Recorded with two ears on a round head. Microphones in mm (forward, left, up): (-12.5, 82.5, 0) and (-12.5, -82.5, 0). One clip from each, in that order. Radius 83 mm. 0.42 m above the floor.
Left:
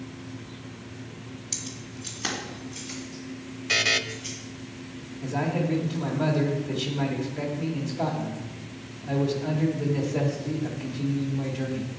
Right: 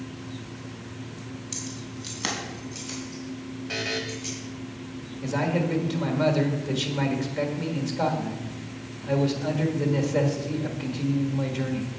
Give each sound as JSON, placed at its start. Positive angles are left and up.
{"t": 1.5, "sound": "keys jangling", "side_deg": 15, "distance_m": 1.6}
{"t": 3.7, "sound": "a buzzer", "side_deg": 55, "distance_m": 0.6}
{"t": 5.2, "sound": "a man speaking", "side_deg": -40, "distance_m": 1.5}